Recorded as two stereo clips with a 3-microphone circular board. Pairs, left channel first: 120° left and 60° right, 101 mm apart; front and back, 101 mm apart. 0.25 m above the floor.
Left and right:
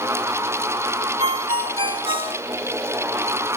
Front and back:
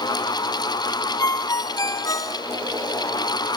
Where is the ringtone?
50° right, 1.2 m.